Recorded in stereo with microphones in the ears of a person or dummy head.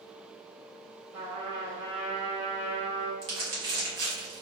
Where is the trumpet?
40° right (ahead or behind), 1.0 m.